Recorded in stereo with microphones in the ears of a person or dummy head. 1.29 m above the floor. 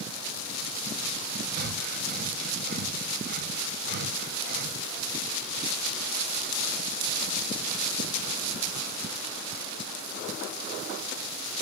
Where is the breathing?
50° right (ahead or behind), 0.7 m.